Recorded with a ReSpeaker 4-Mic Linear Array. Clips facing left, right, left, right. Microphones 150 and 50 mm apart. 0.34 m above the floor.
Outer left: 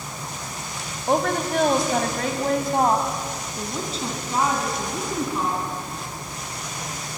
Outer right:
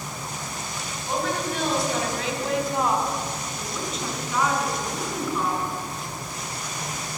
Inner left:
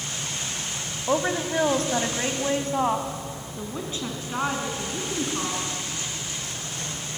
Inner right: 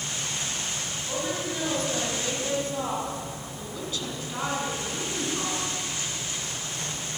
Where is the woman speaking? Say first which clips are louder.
Outer left 5 dB, inner left 8 dB; 60° left (ahead or behind), 2.0 m; by 5.6 s 25° left (ahead or behind), 4 m.